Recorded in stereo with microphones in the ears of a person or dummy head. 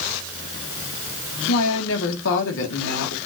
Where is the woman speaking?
75° left (ahead or behind), 2 m.